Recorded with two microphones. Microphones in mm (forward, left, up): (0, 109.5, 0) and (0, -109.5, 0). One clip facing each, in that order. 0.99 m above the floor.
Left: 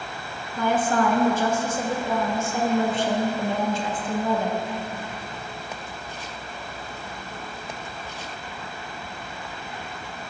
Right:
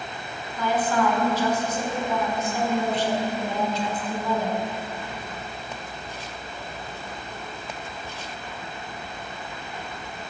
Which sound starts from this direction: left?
A woman speaking, at 0.6 s.